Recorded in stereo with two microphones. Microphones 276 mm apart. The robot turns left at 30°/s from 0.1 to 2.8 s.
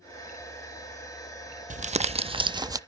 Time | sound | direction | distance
1.7 | crumpling | 125° right | 0.5 m